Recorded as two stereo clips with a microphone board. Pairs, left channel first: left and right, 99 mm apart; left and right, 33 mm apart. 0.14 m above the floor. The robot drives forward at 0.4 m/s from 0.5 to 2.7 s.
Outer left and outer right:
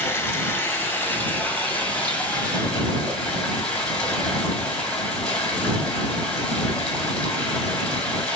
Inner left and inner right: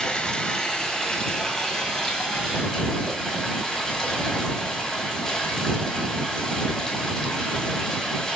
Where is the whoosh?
50° right (ahead or behind), 1.1 m.